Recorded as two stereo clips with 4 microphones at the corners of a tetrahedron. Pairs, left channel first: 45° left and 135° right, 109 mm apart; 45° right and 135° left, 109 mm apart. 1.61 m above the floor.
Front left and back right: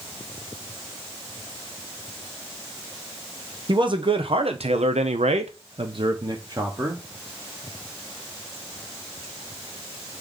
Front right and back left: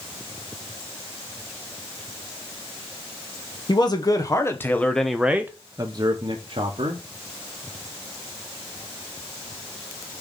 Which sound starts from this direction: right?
A man speaking, at 3.7 s.